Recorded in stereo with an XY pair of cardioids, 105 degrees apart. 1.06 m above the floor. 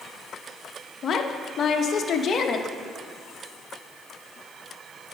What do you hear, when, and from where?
1.0 s a woman speaking: 50° left, 1.0 m